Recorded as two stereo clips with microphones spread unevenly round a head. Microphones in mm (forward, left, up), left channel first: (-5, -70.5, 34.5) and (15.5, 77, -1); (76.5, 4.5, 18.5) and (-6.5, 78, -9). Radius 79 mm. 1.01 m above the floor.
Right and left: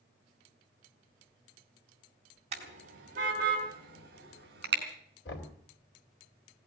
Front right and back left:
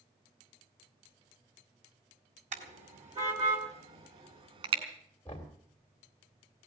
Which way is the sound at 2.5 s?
130° left.